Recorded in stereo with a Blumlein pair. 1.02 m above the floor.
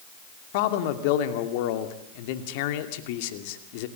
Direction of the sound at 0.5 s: 50° left.